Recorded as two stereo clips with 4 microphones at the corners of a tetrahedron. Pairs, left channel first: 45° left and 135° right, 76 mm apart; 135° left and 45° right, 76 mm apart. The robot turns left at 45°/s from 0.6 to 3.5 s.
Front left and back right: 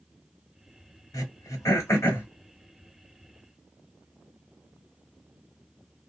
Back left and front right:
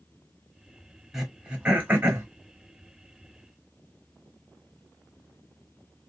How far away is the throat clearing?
About 1.1 m.